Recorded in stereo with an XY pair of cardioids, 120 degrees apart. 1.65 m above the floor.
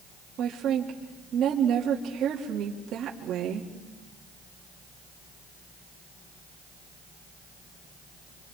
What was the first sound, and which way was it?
A woman speaking, 65° right.